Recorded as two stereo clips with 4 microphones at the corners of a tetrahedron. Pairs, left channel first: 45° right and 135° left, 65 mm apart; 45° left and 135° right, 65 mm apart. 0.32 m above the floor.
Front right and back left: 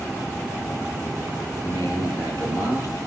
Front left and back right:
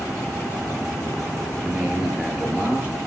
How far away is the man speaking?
About 9 m.